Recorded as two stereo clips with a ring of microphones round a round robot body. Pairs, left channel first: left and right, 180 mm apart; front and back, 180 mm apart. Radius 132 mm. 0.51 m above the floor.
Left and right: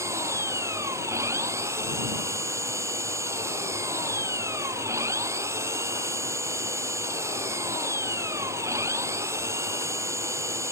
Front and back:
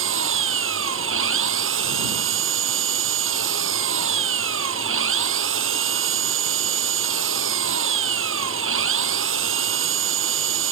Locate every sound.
0.0 s an engine running: 170° right